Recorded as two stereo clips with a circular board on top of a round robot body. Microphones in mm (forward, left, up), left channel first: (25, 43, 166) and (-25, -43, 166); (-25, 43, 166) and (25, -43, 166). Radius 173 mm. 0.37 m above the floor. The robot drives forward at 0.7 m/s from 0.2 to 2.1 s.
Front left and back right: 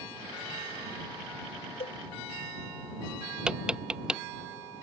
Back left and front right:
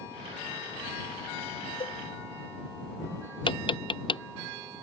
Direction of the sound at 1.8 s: 80° left.